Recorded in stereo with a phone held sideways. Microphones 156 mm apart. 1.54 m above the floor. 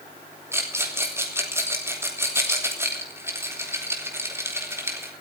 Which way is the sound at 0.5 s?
15° right (ahead or behind).